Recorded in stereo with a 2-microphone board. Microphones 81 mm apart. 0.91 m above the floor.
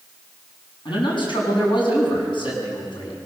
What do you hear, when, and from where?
0.8 s a man speaking: 80° left, 6.5 m